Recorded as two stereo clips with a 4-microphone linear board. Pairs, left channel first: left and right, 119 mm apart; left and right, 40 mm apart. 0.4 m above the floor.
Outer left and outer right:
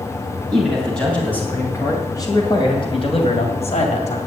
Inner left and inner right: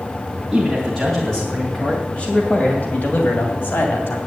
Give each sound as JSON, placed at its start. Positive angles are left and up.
{"t": 0.5, "sound": "a man speaking", "side_deg": 0, "distance_m": 3.0}